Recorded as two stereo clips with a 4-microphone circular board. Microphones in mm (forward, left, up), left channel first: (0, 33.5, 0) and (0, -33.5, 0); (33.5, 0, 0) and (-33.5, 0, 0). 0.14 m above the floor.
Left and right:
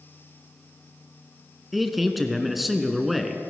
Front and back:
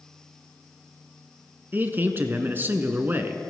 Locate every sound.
1.7 s a man speaking: straight behind, 1.2 m